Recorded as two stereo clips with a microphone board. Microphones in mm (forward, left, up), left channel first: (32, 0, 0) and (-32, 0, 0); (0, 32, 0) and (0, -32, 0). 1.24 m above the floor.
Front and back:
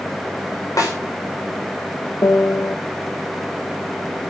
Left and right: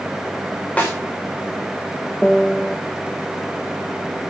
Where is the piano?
15° left, 1.2 m.